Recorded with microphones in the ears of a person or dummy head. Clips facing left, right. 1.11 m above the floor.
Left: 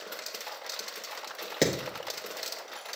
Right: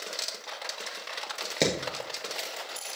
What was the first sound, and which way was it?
Hammering, 5° left (ahead or behind).